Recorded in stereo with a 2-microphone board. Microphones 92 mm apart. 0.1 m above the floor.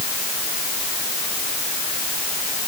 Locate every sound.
Only background noise.